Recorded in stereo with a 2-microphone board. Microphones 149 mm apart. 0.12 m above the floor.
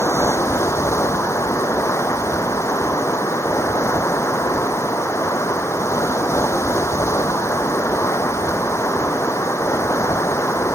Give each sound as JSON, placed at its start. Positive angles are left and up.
{"t": 0.0, "sound": "running water", "side_deg": 20}